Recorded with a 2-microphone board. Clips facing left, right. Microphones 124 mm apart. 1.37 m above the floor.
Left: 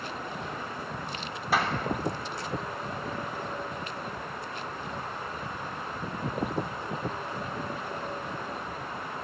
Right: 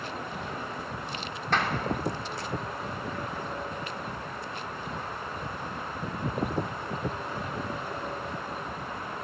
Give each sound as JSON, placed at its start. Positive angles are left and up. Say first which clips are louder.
{"t": 1.5, "sound": "a clap", "louder": "left 1 dB", "side_deg": 5, "distance_m": 3.0}